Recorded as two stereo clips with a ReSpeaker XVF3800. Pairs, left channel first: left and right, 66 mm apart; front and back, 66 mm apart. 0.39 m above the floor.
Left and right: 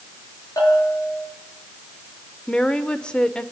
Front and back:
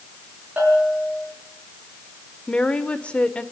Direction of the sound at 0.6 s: 115° left.